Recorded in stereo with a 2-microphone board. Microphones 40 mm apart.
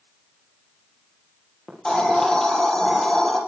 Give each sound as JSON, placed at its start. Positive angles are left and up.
{"t": 1.7, "sound": "a hiss", "side_deg": 15, "distance_m": 5.0}